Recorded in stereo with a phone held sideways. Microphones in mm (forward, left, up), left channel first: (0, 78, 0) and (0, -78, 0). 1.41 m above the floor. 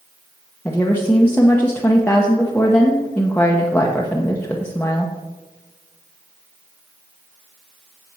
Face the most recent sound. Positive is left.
turn(degrees=15)  # may be behind; listen again after turning